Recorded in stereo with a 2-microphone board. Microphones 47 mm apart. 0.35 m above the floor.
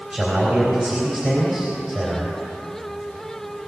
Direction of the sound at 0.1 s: 30° right (ahead or behind).